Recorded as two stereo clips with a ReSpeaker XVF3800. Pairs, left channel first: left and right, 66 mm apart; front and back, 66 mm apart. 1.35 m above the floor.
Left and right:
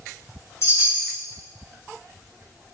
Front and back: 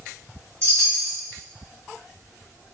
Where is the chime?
135° left, 1.3 m.